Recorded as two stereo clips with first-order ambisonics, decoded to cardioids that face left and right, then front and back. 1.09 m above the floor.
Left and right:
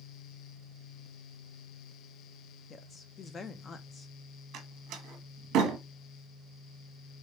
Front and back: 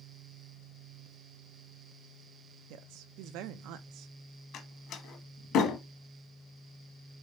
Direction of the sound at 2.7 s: 160° left.